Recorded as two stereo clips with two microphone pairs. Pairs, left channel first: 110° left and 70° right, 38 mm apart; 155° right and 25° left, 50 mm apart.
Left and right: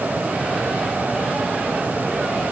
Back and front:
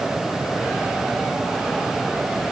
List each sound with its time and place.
Only background noise.